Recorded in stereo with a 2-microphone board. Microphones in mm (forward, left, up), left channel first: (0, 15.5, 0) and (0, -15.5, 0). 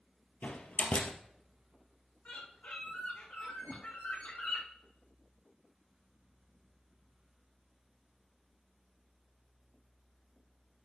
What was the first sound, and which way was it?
A door slam, 65° left (ahead or behind).